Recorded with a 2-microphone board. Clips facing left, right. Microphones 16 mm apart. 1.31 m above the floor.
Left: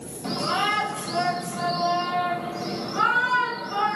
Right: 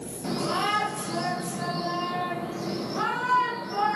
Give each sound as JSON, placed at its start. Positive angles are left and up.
{"t": 0.2, "sound": "a shout", "side_deg": 90, "distance_m": 3.0}